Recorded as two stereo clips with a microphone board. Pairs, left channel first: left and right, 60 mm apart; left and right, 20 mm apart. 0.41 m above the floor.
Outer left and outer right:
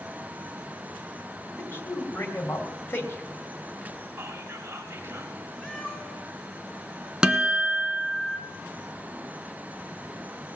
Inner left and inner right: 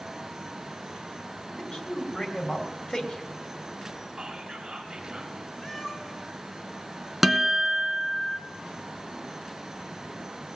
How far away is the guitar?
About 1.3 m.